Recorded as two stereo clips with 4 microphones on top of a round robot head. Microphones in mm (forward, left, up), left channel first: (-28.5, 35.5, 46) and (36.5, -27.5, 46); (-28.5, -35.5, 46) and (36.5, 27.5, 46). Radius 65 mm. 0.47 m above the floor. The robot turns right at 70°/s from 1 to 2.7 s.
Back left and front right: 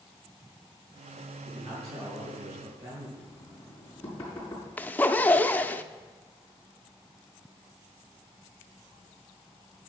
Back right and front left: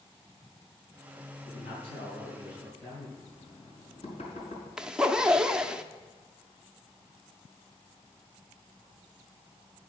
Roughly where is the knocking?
Behind right.